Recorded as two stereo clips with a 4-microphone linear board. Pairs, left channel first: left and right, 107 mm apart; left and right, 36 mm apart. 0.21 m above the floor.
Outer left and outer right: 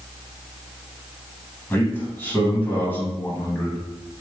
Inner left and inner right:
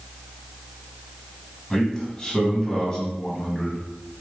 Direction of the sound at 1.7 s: 20° left (ahead or behind).